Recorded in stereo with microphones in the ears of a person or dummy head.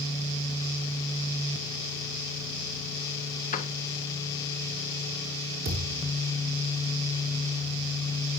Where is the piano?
35° left (ahead or behind), 0.9 m.